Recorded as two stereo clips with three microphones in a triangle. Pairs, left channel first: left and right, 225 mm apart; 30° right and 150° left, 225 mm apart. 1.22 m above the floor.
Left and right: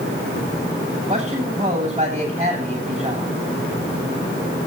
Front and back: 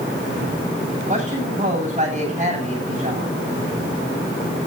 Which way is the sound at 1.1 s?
155° right.